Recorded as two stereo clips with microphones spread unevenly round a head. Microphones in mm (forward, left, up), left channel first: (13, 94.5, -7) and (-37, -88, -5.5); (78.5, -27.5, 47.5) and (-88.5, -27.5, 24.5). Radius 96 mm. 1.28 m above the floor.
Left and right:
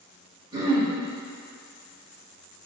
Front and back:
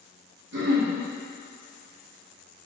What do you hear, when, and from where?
0.5 s throat clearing: 170° right, 1.4 m